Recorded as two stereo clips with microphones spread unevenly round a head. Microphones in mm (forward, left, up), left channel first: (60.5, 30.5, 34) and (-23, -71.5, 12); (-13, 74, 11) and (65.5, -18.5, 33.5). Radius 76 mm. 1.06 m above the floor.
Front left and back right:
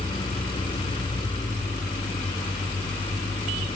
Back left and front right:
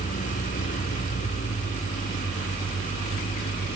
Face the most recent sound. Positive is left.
turn(degrees=110)